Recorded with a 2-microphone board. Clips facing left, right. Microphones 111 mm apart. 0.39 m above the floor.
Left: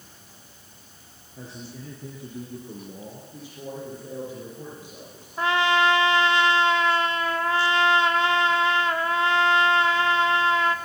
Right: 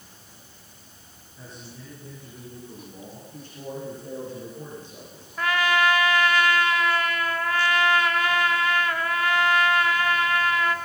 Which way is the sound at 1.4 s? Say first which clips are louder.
Left 4 dB; 80° left.